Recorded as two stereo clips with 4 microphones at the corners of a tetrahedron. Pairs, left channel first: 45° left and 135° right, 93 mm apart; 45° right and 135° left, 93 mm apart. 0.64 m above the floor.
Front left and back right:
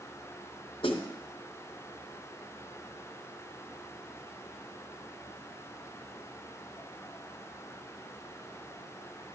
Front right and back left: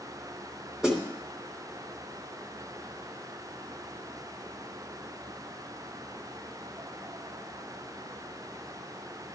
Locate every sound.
0.8 s a snare drum: 50° left, 2.5 m